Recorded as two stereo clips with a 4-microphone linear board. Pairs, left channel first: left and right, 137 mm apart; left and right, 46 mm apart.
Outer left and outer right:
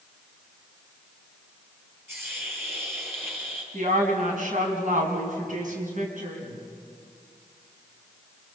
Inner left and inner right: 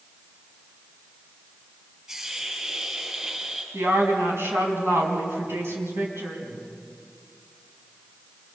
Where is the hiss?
15° right (ahead or behind), 5.5 m.